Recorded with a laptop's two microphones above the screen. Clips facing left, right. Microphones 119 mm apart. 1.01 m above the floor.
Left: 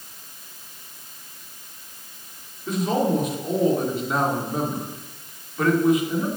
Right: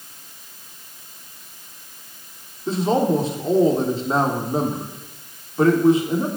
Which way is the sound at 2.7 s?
30° right (ahead or behind).